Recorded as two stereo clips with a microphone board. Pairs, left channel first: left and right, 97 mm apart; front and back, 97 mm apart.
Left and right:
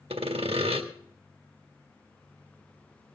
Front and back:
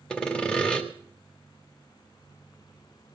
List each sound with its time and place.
0.1 s sawing: 80° right, 1.6 m